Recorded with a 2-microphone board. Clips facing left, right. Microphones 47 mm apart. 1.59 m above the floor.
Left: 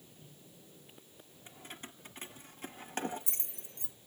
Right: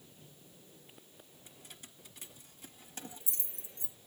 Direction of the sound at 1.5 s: 40° left (ahead or behind).